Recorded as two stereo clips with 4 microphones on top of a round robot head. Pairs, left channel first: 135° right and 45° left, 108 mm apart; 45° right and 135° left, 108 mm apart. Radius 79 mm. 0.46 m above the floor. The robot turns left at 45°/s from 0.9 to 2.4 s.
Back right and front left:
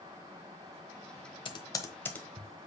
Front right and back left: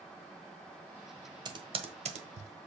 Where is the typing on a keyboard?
175° right, 1.3 m; by 2.7 s 140° left, 1.3 m.